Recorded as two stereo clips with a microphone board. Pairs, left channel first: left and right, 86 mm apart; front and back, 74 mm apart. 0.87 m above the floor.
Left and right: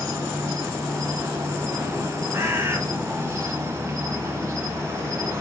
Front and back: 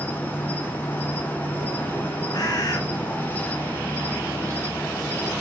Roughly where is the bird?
Ahead right.